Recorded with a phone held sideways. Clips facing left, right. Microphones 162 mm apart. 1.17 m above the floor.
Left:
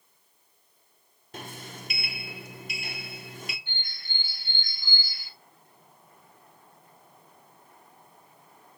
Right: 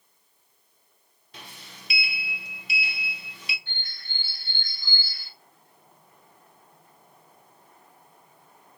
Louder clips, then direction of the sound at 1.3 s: Left 7 dB; 50° left (ahead or behind).